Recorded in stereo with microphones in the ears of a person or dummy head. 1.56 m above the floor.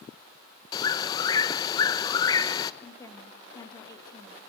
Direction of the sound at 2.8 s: 25° left (ahead or behind).